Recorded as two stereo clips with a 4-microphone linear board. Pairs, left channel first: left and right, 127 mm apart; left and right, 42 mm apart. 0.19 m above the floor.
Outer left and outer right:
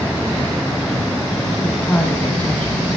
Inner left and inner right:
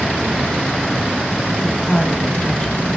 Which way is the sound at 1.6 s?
15° left (ahead or behind).